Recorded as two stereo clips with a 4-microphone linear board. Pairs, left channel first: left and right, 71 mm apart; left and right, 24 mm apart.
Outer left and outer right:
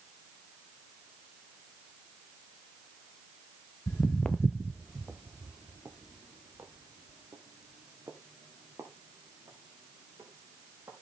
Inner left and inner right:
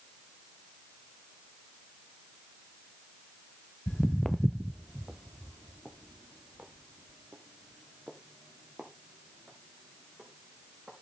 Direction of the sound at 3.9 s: 35° left (ahead or behind).